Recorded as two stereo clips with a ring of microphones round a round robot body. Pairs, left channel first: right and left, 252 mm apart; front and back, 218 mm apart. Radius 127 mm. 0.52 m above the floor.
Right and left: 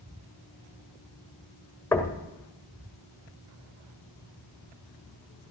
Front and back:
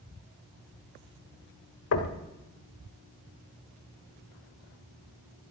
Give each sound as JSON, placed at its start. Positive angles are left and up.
{"t": 1.9, "sound": "knocking", "azimuth_deg": -10, "distance_m": 1.5}